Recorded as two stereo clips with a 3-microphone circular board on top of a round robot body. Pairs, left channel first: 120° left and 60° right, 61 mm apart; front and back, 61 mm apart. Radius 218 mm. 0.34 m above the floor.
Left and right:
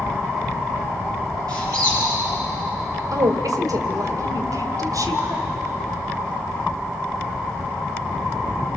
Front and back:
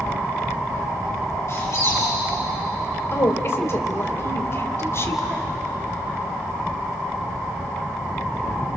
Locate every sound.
1.5 s a squeak: 40° right, 8.5 m
3.1 s a woman speaking: 45° right, 2.5 m